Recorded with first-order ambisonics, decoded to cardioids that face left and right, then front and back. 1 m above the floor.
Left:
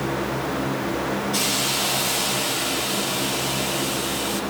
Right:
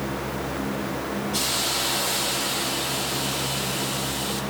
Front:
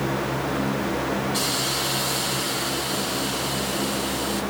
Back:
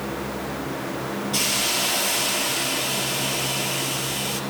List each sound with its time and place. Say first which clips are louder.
1.3 s a hiss: left 1 dB, back 2 dB; 160° left, 10 m